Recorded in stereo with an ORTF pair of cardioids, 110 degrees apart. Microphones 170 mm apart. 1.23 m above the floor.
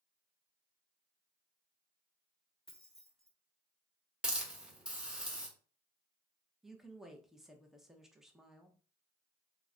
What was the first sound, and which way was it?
Keys jangling, 5° left.